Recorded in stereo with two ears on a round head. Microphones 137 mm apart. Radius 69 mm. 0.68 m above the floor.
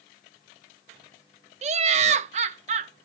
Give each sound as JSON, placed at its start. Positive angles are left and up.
{"t": 1.6, "sound": "laughter", "side_deg": -45, "distance_m": 0.7}